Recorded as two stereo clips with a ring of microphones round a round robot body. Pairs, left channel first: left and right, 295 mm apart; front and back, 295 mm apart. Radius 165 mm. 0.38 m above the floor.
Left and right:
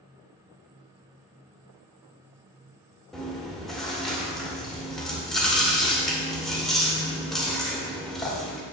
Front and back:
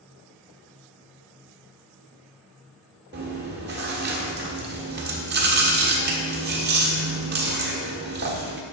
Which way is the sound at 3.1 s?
Straight behind.